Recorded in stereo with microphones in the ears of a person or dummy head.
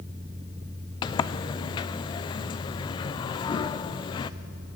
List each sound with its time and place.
1.0 s a sliding door: 25° left (ahead or behind), 0.7 m